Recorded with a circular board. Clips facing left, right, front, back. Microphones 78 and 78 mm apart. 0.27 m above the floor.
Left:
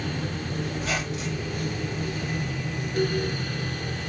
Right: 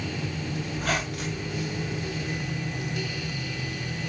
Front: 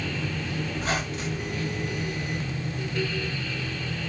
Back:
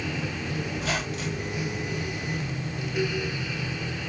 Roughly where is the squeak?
Ahead right.